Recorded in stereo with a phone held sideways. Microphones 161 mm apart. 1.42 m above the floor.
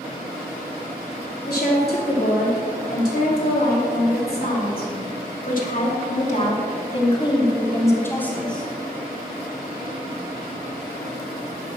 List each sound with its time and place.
1.5 s a woman speaking: 85° left, 4 m; by 8.7 s centre (ahead or behind), 1.7 m